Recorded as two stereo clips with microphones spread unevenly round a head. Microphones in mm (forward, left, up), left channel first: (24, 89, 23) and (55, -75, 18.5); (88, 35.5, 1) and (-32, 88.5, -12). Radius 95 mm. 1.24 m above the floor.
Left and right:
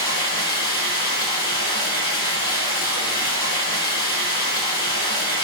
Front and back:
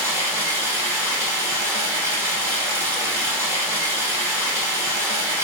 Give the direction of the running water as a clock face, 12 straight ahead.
9 o'clock.